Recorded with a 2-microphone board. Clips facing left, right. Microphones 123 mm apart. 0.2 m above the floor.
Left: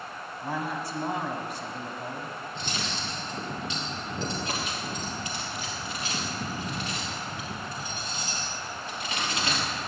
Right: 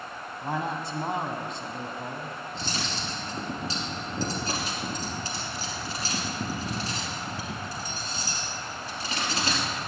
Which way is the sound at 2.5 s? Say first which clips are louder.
Right 1 dB; 35° right (ahead or behind).